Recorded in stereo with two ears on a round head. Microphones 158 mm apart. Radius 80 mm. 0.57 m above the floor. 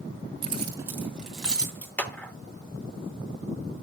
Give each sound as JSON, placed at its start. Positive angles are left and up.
{"t": 0.4, "sound": "keys jangling", "side_deg": -35, "distance_m": 1.9}
{"t": 2.0, "sound": "a clap", "side_deg": 10, "distance_m": 0.9}